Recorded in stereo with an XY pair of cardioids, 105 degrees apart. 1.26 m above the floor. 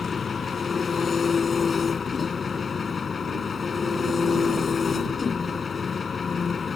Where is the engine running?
35° left.